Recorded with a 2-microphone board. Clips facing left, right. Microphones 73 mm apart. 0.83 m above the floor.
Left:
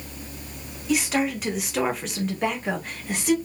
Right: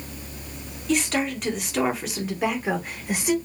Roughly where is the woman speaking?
Centre.